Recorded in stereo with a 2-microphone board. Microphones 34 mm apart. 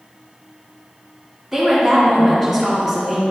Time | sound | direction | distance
1.5 | a woman speaking | 5° right (ahead or behind) | 2 m